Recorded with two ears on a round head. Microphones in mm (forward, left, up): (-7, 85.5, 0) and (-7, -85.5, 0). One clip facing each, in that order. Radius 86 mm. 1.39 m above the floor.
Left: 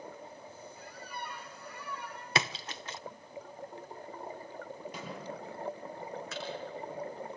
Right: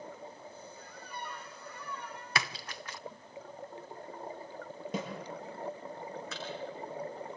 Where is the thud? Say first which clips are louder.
Left 2 dB; 70° right (ahead or behind), 6 m.